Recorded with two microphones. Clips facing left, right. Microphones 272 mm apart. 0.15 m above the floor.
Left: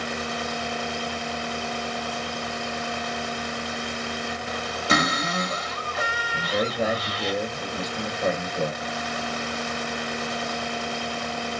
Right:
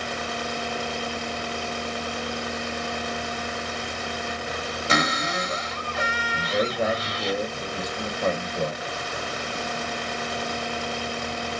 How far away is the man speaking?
About 3.5 m.